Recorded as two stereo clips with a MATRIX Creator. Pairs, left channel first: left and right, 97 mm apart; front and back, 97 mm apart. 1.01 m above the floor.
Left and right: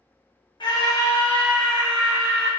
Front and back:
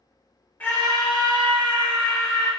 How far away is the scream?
About 1.3 m.